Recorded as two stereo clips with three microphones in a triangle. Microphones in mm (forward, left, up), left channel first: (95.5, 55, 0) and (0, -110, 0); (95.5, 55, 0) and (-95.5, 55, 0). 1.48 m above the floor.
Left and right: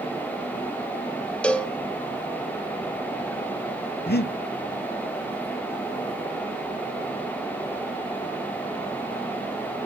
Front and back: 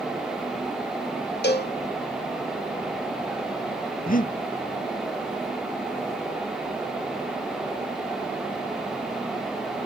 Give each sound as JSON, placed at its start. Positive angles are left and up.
{"t": 1.4, "sound": "a cowbell", "azimuth_deg": -25, "distance_m": 1.1}
{"t": 4.1, "sound": "breathing", "azimuth_deg": 40, "distance_m": 0.6}